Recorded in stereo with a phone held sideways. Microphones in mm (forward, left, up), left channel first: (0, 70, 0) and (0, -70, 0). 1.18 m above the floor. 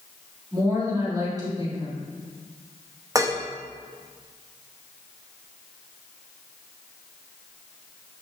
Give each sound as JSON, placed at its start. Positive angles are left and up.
{"t": 0.5, "sound": "a woman speaking", "side_deg": -30, "distance_m": 3.0}
{"t": 3.1, "sound": "dishes clattering", "side_deg": -25, "distance_m": 0.9}